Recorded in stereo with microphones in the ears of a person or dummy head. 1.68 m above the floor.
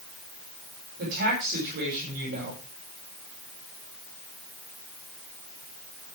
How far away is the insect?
No insect in this recording.